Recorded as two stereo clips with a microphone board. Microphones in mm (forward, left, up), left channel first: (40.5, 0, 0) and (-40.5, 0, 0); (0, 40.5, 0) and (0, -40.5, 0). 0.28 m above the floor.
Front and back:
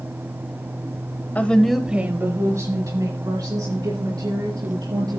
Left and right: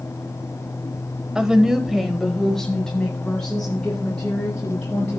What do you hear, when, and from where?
1.4 s a woman speaking: 25° right, 1.1 m; by 5.2 s 170° left, 4 m